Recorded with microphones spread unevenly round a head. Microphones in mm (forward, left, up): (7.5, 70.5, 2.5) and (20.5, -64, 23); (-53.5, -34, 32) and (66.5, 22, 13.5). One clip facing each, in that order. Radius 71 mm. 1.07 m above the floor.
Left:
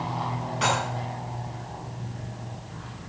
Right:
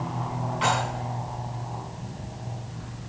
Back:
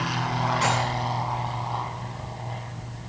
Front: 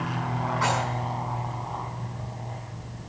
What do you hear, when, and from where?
0.6 s dishes clattering: 140° left, 7.5 m